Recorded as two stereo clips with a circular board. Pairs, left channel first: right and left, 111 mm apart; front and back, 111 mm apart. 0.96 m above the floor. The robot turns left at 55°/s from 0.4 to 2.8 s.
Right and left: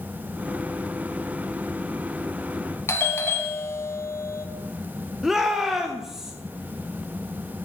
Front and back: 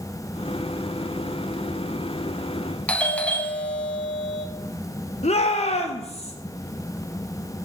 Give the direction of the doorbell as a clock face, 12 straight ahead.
2 o'clock.